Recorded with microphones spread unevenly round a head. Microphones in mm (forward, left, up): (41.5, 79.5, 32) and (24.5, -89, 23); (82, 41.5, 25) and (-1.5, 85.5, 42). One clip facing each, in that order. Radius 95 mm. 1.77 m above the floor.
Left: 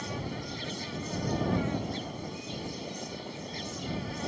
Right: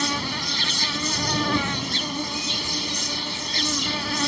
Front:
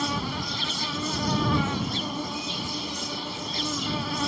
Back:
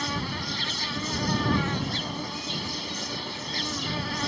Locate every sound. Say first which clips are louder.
0.0 s an insect: right 8 dB, front 2 dB; 100° right